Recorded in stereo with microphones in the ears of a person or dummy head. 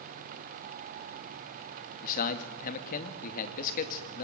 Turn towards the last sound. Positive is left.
turn(degrees=45)  # may be behind; listen again after turning